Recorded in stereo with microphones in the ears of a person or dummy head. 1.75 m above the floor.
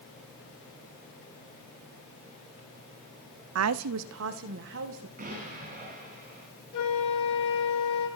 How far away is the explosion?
About 8.5 m.